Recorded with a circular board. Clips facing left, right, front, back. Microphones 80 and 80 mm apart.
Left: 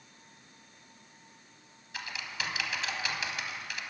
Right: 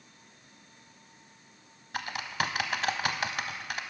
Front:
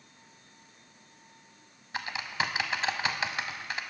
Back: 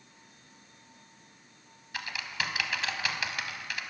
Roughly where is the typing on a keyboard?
Ahead right.